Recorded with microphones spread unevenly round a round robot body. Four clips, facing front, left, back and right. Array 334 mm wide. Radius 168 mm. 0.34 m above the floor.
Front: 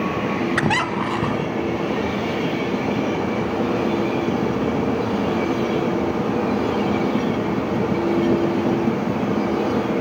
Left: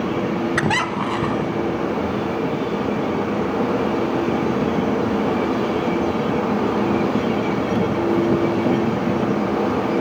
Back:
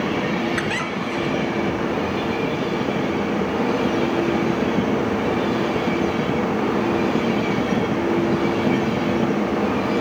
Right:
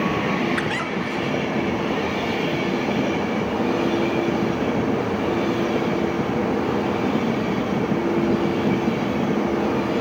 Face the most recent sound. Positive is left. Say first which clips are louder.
# left 4 dB, front 4 dB
turn(degrees=45)